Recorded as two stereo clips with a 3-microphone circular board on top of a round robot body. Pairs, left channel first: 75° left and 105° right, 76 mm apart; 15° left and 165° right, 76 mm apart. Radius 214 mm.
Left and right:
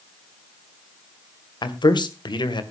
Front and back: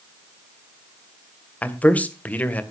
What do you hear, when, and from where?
1.6 s a man speaking: 85° left, 2 m